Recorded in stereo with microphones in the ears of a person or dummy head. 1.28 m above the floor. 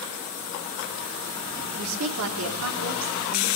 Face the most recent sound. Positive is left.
turn(degrees=-80)